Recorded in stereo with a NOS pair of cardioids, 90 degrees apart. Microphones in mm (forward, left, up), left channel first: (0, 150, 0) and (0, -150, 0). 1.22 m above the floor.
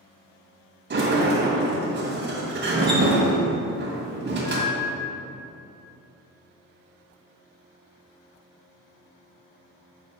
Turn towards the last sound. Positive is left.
turn(degrees=-35)